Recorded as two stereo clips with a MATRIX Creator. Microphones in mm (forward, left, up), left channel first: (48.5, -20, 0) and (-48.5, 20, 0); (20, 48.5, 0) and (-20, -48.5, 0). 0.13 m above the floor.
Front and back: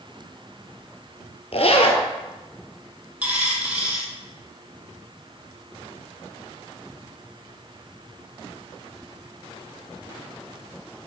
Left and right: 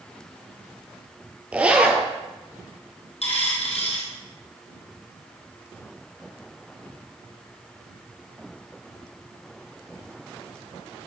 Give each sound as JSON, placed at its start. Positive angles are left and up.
{"t": 1.5, "sound": "a zipper", "azimuth_deg": -35, "distance_m": 1.2}
{"t": 3.2, "sound": "a dropped coin", "azimuth_deg": 80, "distance_m": 1.8}